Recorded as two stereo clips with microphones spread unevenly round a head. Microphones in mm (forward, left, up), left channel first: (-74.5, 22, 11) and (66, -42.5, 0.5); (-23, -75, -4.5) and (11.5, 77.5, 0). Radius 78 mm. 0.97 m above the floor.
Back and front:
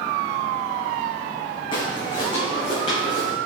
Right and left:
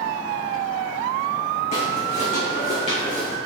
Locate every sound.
1.7 s footsteps: 150° right, 3 m; by 3.4 s 155° right, 4 m